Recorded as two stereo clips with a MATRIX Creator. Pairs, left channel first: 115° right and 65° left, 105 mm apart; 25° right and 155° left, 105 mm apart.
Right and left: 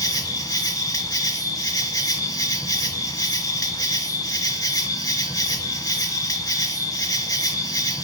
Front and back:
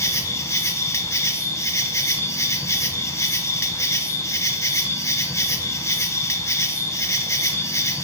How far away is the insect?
About 0.7 m.